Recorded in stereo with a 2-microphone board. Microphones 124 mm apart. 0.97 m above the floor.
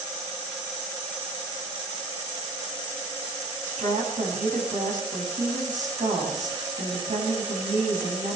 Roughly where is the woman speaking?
Right.